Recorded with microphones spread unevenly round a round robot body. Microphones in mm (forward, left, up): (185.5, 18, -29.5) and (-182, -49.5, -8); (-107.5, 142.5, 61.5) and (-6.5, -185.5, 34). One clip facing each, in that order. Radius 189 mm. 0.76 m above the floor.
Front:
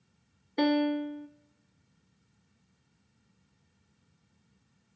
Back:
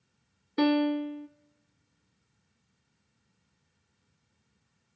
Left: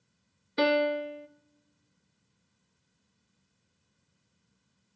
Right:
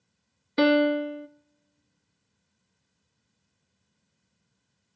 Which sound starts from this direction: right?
A piano, at 0.6 s.